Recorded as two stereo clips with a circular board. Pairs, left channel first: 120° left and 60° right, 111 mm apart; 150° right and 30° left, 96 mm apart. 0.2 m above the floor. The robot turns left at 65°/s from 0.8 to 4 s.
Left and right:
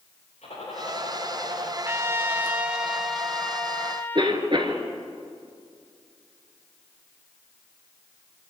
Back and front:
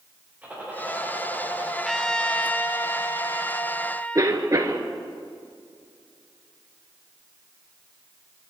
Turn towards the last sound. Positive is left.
turn(degrees=-20)